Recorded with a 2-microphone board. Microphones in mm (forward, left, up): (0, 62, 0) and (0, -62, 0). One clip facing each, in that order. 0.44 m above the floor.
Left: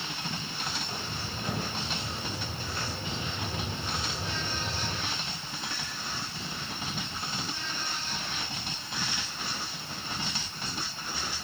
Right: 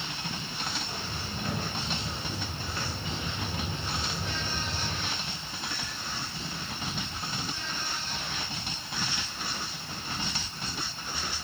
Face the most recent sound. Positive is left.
turn(degrees=10)  # may be behind; listen again after turning